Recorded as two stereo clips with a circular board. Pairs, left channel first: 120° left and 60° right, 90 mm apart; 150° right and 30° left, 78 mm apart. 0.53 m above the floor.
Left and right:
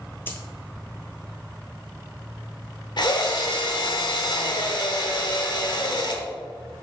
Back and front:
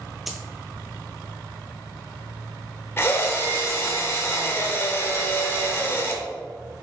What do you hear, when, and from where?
0.3 s a dropped coin: 115° left, 0.5 m
3.0 s a drill: 155° left, 0.7 m